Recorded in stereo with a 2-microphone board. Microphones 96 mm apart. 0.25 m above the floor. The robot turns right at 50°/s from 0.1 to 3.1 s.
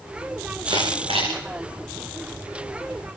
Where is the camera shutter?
50° right (ahead or behind), 7 m; by 1.3 s 85° right, 7 m.